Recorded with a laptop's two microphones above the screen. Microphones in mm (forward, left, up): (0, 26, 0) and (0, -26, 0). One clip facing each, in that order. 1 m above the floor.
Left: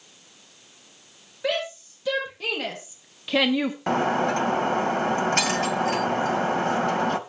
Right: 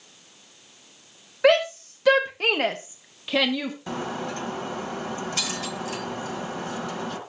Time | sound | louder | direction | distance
1.4 | a shout | right 9 dB | 75° right (ahead or behind) | 2.5 m
3.9 | breaking glass | left 12 dB | 60° left (ahead or behind) | 1.6 m